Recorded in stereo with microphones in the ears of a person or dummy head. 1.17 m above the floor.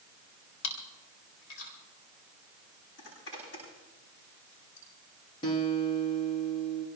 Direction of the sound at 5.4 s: 25° left (ahead or behind).